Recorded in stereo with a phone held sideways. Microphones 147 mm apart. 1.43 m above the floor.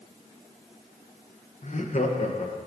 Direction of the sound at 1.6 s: 50° left (ahead or behind).